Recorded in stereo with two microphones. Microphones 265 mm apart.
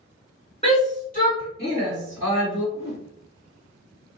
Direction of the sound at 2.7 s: 70° left (ahead or behind).